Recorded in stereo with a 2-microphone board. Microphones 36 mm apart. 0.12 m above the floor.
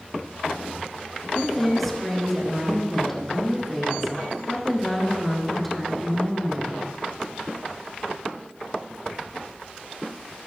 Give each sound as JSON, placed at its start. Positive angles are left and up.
{"t": 1.4, "sound": "a woman speaking", "side_deg": 5, "distance_m": 1.4}